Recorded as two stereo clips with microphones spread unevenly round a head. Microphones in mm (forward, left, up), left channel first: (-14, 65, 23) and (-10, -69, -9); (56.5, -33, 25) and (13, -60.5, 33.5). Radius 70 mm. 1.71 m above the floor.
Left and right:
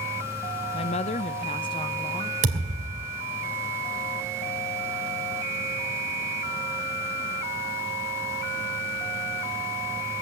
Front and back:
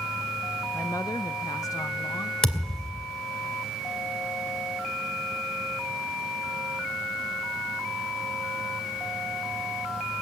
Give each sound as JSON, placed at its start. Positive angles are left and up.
{"t": 0.7, "sound": "a woman speaking", "azimuth_deg": 120, "distance_m": 0.5}
{"t": 2.4, "sound": "a thud", "azimuth_deg": -45, "distance_m": 2.5}